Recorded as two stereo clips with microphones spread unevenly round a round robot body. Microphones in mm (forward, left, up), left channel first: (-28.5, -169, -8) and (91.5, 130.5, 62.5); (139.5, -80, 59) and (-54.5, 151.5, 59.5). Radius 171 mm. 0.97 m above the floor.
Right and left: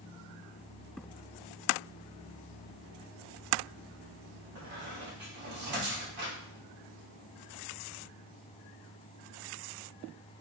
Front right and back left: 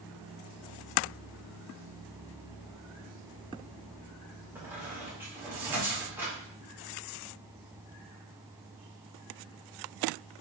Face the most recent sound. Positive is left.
turn(degrees=45)